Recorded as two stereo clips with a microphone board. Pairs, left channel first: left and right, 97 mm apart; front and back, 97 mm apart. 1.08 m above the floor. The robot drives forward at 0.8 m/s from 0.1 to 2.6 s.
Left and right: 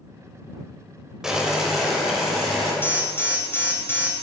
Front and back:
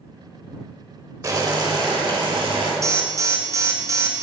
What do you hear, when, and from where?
1.2 s boiling: 170° right, 0.9 m; by 2.7 s 175° right, 1.8 m
2.8 s an alarm: 145° left, 0.9 m